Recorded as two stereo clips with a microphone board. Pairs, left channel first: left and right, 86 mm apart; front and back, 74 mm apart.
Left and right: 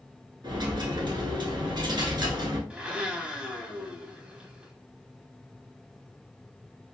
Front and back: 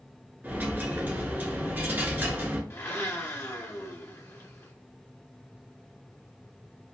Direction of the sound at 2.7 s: 20° right.